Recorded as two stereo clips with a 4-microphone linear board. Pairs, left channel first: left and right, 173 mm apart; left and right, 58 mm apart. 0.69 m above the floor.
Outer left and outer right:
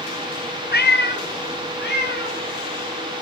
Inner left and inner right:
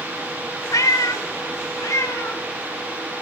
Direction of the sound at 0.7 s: 65° left (ahead or behind).